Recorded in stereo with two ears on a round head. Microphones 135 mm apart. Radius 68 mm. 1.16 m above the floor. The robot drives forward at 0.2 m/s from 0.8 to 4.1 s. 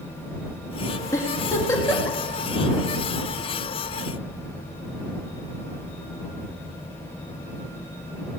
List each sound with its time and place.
1.1 s a giggle: 20° left (ahead or behind), 2 m